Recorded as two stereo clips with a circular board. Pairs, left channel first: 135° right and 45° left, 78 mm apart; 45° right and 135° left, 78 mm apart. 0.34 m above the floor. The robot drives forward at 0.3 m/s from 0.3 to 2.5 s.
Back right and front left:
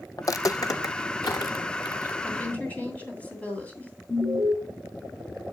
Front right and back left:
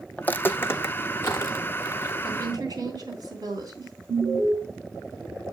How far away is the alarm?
About 1.8 m.